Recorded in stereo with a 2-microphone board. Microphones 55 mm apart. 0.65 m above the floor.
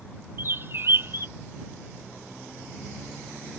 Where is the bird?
50° right (ahead or behind).